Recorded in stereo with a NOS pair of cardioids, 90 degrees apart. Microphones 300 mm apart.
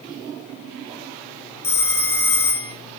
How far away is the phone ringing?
About 0.9 m.